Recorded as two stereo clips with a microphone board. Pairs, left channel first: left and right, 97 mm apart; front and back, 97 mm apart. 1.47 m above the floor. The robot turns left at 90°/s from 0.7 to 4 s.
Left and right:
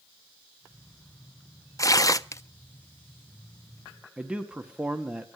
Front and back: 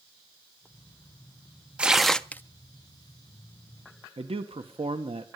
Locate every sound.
1.8 s tearing paper: 110° left, 0.5 m; by 2.4 s 55° left, 0.5 m
4.2 s a man speaking: 170° right, 1.4 m